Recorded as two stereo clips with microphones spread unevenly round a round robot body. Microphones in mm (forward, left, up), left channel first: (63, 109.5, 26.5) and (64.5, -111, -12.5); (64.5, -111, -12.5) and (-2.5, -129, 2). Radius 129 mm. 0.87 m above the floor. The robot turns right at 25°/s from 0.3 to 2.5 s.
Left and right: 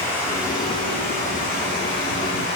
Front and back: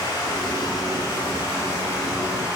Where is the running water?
10° left, 1.3 m; by 2.6 s 65° left, 1.3 m.